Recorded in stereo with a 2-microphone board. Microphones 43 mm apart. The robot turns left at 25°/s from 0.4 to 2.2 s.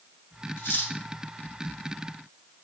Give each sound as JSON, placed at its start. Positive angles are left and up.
{"t": 0.6, "sound": "cutlery clinking", "side_deg": 65, "distance_m": 0.8}